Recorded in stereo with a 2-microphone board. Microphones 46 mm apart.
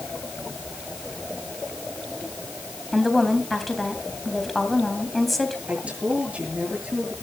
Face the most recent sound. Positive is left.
turn(degrees=-30)  # may be behind; listen again after turning